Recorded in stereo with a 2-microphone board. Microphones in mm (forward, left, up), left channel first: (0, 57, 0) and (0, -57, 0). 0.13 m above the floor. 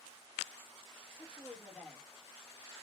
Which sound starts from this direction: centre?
A woman speaking, at 1.2 s.